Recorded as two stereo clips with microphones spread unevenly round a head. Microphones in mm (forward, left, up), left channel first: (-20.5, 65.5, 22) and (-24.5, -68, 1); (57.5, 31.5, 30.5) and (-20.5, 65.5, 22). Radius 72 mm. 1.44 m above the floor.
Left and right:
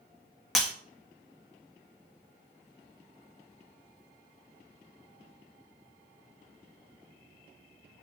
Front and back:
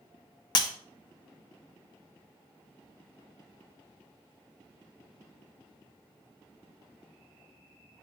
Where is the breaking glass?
Straight ahead, 1.2 m.